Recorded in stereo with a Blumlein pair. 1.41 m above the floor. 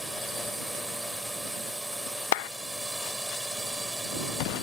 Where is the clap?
45° left.